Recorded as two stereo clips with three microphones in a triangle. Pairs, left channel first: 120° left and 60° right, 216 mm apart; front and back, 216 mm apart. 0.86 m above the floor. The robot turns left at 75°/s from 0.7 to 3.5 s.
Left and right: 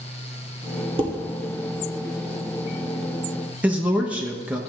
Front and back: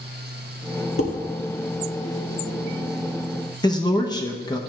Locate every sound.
1.0 s dishes clattering: 5° left, 1.2 m; by 1.1 s 10° right, 1.2 m
3.6 s a man speaking: 10° left, 0.9 m